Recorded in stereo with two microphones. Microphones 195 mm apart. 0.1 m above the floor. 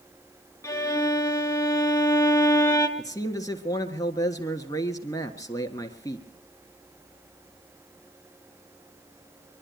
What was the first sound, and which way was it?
A violin, 15° left (ahead or behind).